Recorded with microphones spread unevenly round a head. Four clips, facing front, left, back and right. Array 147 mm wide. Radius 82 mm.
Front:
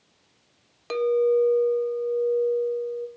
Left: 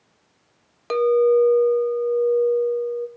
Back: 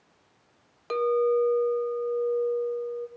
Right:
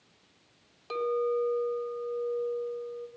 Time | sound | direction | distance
0.9 | a clink | 65° left | 1.0 m